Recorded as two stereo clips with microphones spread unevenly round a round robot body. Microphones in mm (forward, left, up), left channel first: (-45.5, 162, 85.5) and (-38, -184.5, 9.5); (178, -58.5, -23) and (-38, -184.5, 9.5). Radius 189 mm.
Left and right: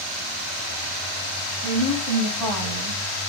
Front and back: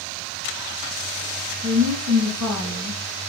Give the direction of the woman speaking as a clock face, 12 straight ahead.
6 o'clock.